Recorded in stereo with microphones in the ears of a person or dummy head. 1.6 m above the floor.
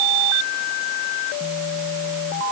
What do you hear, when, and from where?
Only background noise.